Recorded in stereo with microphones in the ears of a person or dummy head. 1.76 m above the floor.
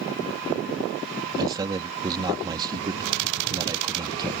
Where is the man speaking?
25° right (ahead or behind).